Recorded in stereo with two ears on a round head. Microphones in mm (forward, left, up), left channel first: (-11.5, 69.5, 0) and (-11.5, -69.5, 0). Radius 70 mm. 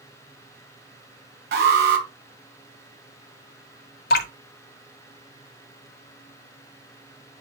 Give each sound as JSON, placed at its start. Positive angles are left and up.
{"t": 1.5, "sound": "an alarm", "side_deg": -70, "distance_m": 2.5}
{"t": 4.1, "sound": "dripping", "side_deg": 70, "distance_m": 1.8}